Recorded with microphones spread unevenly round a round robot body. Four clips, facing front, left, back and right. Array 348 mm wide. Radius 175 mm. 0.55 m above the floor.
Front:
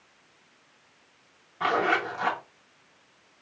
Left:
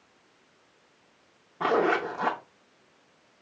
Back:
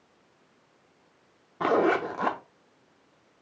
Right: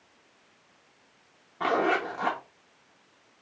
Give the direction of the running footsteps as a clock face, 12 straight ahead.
No running footsteps in this recording.